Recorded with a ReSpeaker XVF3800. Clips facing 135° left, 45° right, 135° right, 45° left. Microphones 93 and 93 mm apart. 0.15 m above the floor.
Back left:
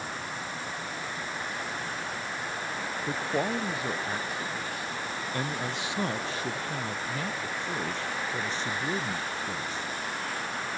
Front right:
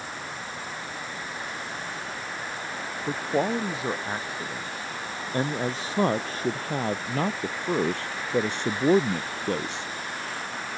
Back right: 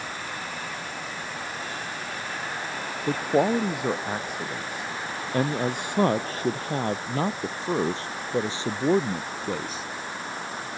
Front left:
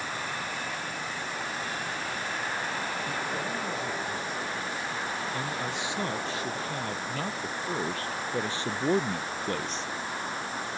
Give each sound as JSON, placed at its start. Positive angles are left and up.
{"t": 3.1, "sound": "a man speaking", "azimuth_deg": -115}